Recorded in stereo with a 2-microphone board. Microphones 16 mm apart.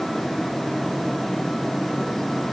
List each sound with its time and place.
Only background noise.